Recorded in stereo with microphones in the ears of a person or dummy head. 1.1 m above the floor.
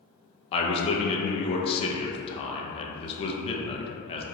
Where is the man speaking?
30° left (ahead or behind), 0.6 m.